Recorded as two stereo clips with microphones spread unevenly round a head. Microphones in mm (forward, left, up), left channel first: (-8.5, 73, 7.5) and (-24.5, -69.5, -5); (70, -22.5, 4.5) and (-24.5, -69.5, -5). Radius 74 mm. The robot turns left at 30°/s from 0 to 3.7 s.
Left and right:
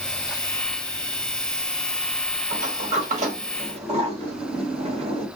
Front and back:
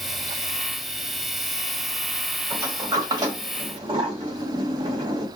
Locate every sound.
2.5 s a sliding door: 95° right, 1.3 m; by 5.3 s 130° right, 1.3 m